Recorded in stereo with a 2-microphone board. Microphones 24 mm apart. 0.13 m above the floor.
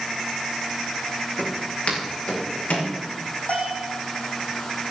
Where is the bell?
75° left (ahead or behind), 7.5 m.